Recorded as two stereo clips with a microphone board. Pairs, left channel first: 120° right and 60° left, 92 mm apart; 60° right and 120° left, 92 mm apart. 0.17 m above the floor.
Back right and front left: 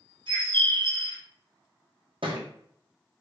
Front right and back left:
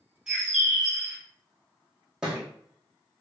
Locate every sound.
0.3 s a bird: 40° left, 1.5 m
2.2 s a thud: 40° left, 1.1 m